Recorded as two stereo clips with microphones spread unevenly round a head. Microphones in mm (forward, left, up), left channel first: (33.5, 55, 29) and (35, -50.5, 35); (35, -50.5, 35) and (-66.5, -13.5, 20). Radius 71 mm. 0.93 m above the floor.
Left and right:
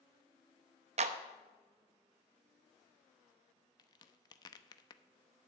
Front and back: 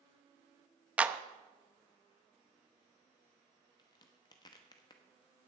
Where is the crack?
40° left, 0.8 m.